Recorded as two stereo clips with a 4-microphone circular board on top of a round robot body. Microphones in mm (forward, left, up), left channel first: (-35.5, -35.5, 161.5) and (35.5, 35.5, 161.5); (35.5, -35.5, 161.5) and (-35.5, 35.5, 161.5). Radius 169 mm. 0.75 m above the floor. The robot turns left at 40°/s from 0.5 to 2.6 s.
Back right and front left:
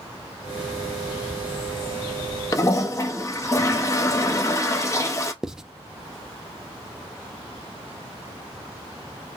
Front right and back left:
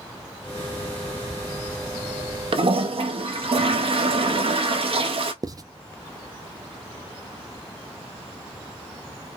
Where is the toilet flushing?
170° left, 0.7 m; by 5.3 s 165° left, 0.7 m.